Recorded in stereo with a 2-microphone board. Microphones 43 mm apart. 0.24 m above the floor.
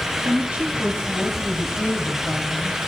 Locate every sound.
0.2 s a woman speaking: 30° right (ahead or behind), 2.5 m; by 2.8 s 20° left (ahead or behind), 1.5 m